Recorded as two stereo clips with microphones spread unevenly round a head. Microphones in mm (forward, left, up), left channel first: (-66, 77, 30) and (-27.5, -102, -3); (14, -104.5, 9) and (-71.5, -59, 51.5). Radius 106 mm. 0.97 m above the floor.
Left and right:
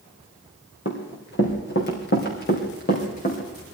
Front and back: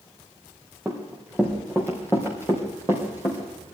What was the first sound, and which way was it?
Running footsteps, 70° left.